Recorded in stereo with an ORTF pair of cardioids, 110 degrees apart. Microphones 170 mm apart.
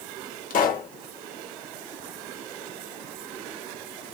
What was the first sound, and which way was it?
A pop, 55° left.